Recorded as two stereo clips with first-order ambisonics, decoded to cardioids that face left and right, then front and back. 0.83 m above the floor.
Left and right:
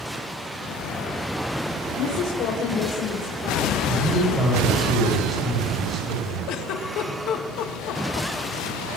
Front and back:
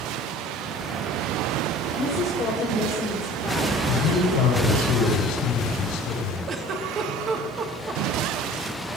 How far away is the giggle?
About 1.4 m.